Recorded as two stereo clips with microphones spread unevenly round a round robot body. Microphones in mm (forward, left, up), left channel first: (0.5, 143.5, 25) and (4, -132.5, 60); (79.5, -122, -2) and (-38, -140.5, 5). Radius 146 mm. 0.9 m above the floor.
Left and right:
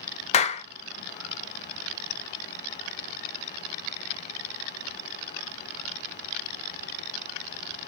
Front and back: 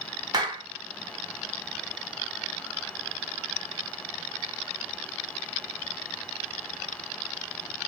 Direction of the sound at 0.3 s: 140° left.